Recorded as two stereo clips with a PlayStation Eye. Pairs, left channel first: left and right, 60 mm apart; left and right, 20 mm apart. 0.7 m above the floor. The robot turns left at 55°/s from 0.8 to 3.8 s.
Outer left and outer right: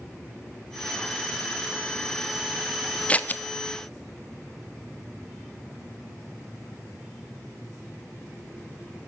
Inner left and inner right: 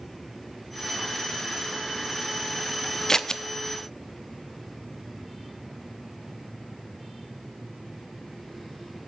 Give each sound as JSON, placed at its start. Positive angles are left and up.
{"t": 3.1, "sound": "scissors", "side_deg": 20, "distance_m": 0.6}